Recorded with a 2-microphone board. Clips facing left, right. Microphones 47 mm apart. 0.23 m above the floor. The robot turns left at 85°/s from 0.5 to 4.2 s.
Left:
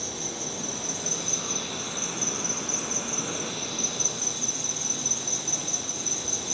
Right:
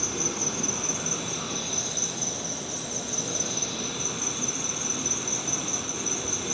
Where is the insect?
85° right, 1.4 m; by 6.5 s 40° right, 1.4 m.